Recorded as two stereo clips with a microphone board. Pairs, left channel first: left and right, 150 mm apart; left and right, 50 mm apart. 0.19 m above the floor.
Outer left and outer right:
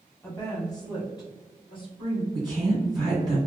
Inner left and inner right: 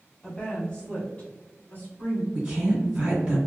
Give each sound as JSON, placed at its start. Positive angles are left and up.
{"t": 0.2, "sound": "a woman speaking", "side_deg": 15, "distance_m": 1.1}
{"t": 2.3, "sound": "a woman speaking", "side_deg": -25, "distance_m": 1.6}